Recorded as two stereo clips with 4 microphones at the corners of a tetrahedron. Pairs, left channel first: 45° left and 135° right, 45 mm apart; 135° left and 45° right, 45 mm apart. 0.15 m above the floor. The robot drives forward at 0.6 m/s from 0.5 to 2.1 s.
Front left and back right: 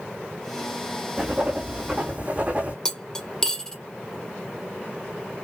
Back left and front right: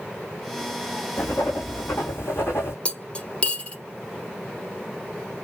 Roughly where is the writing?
Behind left.